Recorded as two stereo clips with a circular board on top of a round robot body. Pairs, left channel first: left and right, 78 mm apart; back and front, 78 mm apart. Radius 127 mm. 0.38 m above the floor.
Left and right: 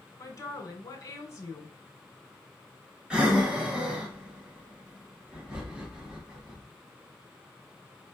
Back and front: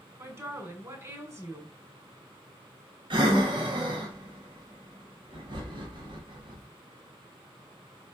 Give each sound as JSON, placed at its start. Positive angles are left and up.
{"t": 0.2, "sound": "a woman speaking", "azimuth_deg": 45, "distance_m": 2.5}
{"t": 3.1, "sound": "breathing", "azimuth_deg": -10, "distance_m": 1.4}